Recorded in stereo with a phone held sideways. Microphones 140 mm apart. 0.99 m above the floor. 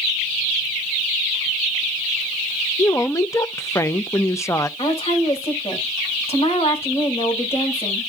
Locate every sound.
2.8 s a woman speaking: 20° left (ahead or behind), 0.7 m
4.8 s a woman speaking: 40° left (ahead or behind), 4.5 m